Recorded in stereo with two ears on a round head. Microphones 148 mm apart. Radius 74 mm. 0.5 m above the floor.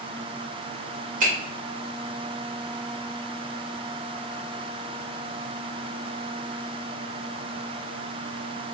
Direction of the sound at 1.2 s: 50° right (ahead or behind).